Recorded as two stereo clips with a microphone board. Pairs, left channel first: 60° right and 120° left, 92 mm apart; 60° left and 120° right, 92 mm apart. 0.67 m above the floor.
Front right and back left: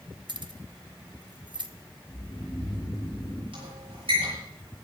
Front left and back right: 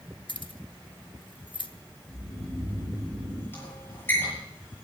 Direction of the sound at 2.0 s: 40° right.